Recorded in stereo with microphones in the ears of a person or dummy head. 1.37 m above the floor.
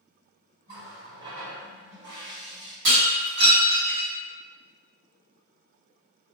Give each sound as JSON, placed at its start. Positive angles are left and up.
{"t": 0.7, "sound": "a running tap", "side_deg": -50, "distance_m": 1.6}
{"t": 2.9, "sound": "breaking glass", "side_deg": -65, "distance_m": 1.6}